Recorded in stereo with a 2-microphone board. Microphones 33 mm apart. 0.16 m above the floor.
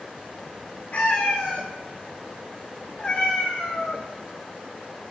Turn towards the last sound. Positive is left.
turn(degrees=15)  # may be behind; listen again after turning